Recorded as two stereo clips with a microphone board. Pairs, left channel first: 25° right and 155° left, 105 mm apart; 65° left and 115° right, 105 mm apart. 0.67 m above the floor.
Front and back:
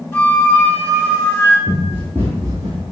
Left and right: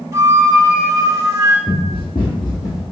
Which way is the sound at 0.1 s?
80° right.